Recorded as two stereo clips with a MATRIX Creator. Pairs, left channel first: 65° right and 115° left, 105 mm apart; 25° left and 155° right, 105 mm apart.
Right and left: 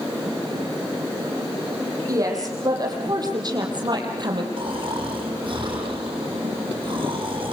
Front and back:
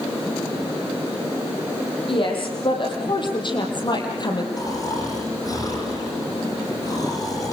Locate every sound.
2.1 s a woman speaking: 55° left, 8 m; by 4.5 s 70° left, 6 m
4.6 s snoring: 75° left, 9.5 m